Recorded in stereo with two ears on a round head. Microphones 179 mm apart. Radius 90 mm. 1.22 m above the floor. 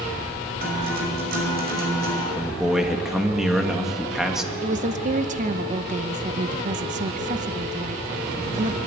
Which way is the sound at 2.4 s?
5° right (ahead or behind).